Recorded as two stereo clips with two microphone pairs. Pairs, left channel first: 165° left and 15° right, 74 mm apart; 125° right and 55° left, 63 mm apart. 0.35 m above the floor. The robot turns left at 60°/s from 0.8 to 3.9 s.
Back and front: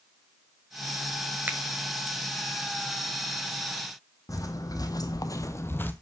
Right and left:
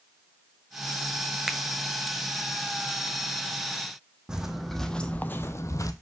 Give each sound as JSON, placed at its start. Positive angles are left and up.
{"t": 1.5, "sound": "a finger snap", "azimuth_deg": -20, "distance_m": 0.6}
{"t": 4.3, "sound": "footsteps", "azimuth_deg": 135, "distance_m": 0.8}